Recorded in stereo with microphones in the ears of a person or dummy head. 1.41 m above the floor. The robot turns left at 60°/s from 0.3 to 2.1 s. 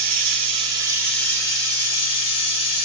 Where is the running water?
130° right, 1.0 m; by 2.9 s 120° left, 1.0 m.